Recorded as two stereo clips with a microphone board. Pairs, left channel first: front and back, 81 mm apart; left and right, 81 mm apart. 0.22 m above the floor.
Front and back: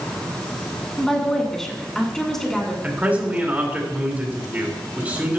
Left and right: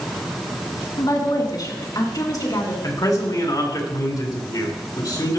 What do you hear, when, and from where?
1.0 s a woman speaking: 85° left, 2.5 m
2.8 s a man speaking: 115° left, 3 m